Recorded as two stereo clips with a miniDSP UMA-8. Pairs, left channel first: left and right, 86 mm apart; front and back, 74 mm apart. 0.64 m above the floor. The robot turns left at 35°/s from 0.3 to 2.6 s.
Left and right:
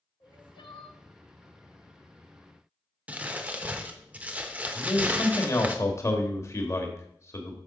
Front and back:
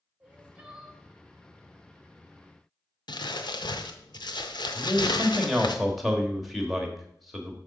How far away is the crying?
About 1.0 m.